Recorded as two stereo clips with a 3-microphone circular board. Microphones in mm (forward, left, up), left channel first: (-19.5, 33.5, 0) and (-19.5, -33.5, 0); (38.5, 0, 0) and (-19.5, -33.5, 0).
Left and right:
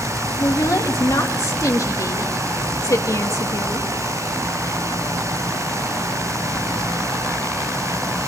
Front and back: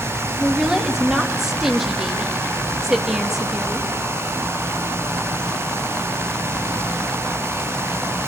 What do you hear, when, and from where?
0.4 s a woman speaking: 125° left, 1.7 m